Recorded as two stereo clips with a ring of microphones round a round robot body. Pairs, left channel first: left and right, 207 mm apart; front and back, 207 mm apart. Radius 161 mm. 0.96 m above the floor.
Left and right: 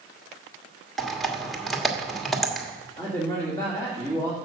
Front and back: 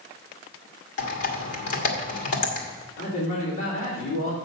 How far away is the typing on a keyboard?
About 1.6 m.